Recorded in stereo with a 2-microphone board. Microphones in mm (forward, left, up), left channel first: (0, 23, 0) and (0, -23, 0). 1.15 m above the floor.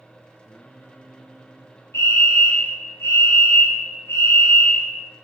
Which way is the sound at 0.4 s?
25° left (ahead or behind).